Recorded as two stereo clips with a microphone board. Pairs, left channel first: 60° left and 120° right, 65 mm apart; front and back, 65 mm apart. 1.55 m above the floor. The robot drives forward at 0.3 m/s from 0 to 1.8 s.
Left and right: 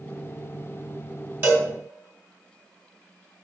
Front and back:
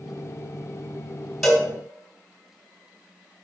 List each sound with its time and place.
1.4 s a cowbell: 85° right, 1.7 m